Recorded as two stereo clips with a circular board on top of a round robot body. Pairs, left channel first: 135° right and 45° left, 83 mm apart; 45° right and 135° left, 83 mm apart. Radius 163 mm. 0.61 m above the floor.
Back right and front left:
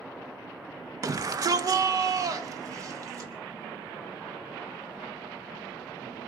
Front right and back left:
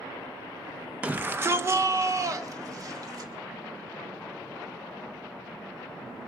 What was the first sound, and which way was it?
A shout, 70° left.